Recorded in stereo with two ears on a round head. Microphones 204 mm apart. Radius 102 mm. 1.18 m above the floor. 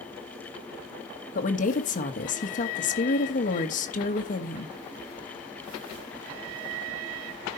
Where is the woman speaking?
35° left (ahead or behind), 1.5 m.